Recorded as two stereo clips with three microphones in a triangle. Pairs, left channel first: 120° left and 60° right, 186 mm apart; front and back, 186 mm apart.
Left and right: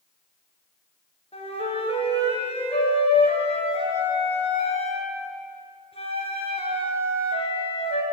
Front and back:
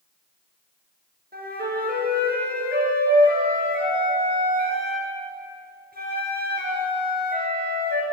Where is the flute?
170° left, 2.5 m.